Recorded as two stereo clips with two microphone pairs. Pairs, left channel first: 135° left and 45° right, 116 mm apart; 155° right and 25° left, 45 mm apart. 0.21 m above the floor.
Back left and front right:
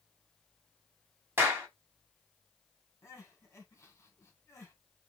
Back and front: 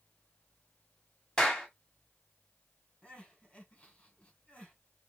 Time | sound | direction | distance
1.4 | a clap | 95° right | 1.5 m
3.0 | crying | 175° left | 1.6 m